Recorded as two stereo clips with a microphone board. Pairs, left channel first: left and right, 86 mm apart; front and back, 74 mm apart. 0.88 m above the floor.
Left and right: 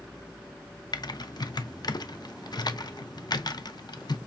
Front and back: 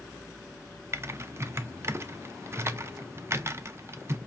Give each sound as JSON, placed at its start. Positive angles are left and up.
{"t": 0.9, "sound": "typing on a keyboard", "azimuth_deg": 130, "distance_m": 0.6}